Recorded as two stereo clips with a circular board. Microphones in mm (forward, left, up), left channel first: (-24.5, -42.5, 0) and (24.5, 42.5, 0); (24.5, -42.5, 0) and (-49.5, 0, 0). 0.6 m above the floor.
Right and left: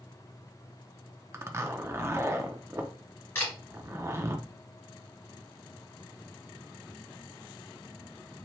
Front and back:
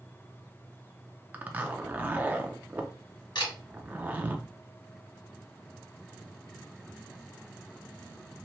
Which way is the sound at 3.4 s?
55° right.